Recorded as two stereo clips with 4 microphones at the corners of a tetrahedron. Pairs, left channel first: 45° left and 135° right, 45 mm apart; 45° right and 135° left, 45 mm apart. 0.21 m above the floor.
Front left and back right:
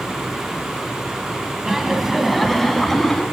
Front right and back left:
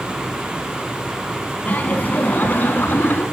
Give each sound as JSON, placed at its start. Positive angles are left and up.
{"t": 1.6, "sound": "laughter", "azimuth_deg": -60, "distance_m": 1.8}